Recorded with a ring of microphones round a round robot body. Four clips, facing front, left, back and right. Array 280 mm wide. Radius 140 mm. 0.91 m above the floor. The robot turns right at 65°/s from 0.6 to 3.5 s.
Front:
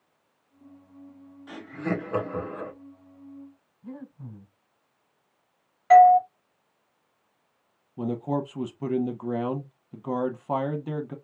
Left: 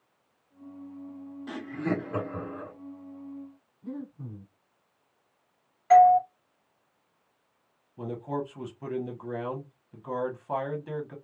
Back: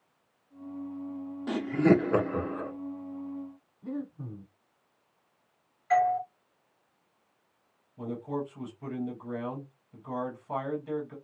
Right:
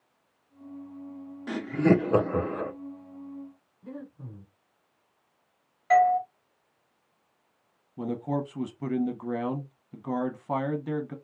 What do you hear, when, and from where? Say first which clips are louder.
1.5 s laughter: right 8 dB, back 8 dB; 160° right, 0.6 m; by 2.7 s 75° right, 0.6 m
3.8 s breathing: left 3 dB, back 5 dB; 175° left, 2.5 m
5.9 s a doorbell: left 4 dB, front 11 dB; 5° right, 1.5 m
8.0 s a man speaking: right 3 dB, front 6 dB; 30° right, 1.0 m